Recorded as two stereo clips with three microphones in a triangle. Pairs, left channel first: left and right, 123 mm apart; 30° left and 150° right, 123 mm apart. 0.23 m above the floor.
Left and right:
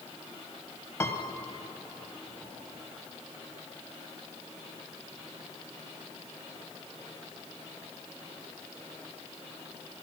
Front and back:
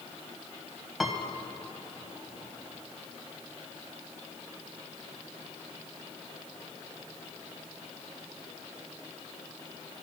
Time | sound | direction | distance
1.0 | a piano | 120° left | 1.3 m